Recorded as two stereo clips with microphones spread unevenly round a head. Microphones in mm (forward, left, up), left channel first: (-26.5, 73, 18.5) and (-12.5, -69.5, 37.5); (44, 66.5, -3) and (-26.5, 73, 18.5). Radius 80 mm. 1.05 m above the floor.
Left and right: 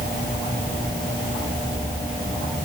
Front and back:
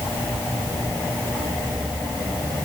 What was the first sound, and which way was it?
Only background noise.